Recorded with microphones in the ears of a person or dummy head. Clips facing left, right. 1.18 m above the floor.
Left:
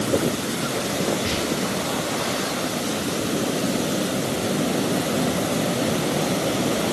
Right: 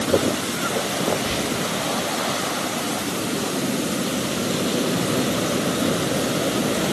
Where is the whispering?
55° left (ahead or behind), 1.6 m.